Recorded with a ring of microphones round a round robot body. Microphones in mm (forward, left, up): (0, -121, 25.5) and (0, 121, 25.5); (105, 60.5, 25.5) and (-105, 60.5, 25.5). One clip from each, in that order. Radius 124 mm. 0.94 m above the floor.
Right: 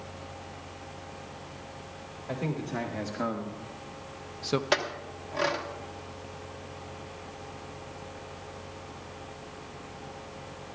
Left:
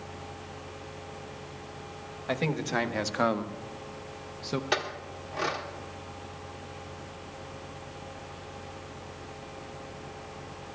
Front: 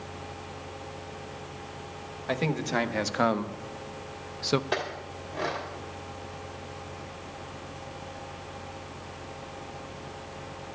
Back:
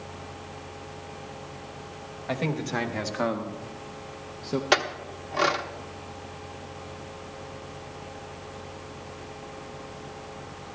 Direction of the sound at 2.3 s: 65° left.